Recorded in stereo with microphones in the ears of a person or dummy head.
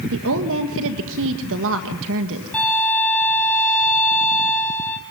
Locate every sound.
0.1 s a woman speaking: 70° right (ahead or behind), 1.7 m
2.5 s a violin: 5° left (ahead or behind), 2.5 m